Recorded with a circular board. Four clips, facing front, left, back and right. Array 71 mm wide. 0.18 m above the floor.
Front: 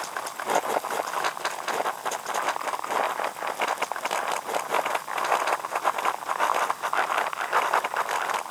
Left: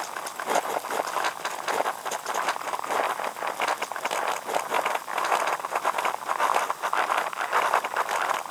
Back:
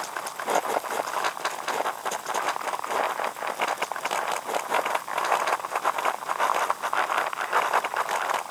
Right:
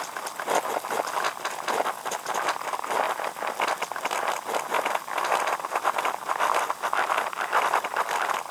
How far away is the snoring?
I don't hear snoring.